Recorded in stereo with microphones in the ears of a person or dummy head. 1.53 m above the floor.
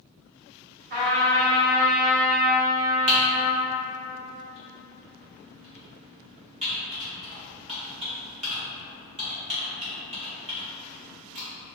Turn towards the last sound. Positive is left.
turn(degrees=-35)  # may be behind; listen again after turning